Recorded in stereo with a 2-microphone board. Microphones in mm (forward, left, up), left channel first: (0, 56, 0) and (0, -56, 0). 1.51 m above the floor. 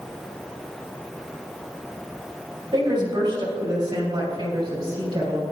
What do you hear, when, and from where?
2.7 s a woman speaking: 40° right (ahead or behind), 3 m; by 5.4 s 35° right (ahead or behind), 5 m